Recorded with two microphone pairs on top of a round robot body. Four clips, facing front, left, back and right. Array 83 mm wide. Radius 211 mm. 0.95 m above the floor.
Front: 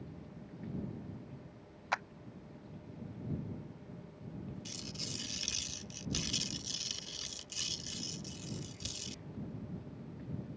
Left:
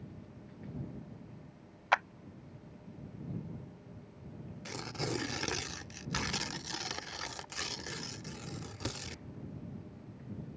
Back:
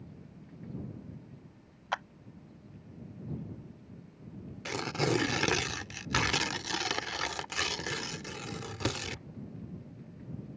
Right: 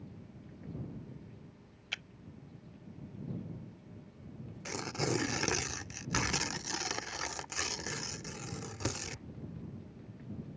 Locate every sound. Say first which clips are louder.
1.9 s a clap: left 18 dB, back 1 dB; 105° left
4.7 s tearing paper: right 4 dB, back 16 dB; 175° right